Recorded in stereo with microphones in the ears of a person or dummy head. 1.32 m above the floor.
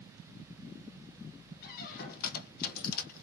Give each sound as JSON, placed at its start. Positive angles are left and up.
{"t": 1.6, "sound": "a squeak", "side_deg": 45, "distance_m": 0.5}